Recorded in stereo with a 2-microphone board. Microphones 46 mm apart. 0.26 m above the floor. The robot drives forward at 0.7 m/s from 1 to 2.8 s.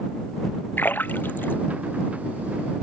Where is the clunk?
I don't hear a clunk.